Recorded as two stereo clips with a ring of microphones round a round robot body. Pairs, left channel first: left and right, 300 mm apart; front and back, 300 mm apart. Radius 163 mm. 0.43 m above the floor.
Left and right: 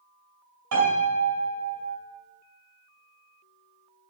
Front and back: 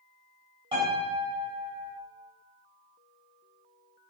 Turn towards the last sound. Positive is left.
turn(degrees=-105)